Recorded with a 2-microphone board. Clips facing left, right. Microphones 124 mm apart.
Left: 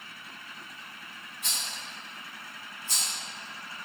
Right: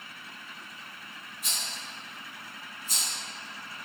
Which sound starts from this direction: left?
A rattle, at 1.4 s.